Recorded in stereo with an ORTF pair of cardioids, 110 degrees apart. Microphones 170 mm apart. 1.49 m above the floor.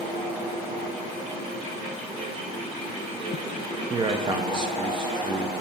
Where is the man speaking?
30° right, 0.7 m.